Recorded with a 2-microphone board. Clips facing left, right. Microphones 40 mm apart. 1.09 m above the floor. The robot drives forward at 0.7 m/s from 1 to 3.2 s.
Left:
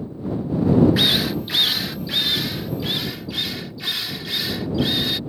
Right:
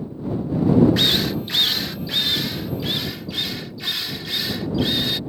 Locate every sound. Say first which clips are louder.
1.0 s a drill: even; 5° left (ahead or behind); by 5.2 s centre (ahead or behind)